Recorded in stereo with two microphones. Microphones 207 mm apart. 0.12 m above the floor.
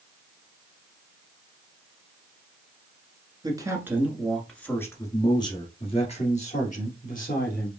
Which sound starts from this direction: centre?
A man speaking, at 3.4 s.